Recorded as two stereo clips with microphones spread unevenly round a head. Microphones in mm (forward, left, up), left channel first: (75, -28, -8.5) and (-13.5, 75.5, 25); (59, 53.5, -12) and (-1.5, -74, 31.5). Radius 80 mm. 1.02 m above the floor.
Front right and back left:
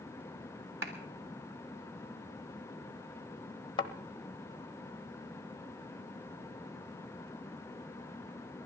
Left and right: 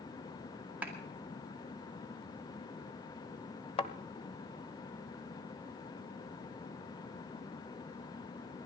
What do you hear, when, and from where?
0.8 s a clap: 160° left, 1.9 m
3.8 s a thud: 5° left, 1.0 m